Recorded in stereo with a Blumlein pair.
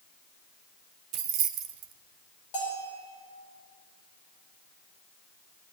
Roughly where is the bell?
Ahead left.